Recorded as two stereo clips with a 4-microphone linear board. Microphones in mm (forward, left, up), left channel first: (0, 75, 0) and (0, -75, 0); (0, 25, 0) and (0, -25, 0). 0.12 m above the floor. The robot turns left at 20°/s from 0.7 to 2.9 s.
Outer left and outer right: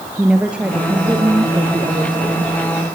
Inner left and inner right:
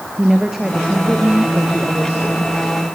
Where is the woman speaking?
10° right, 3 m; by 2.5 s 45° right, 3 m.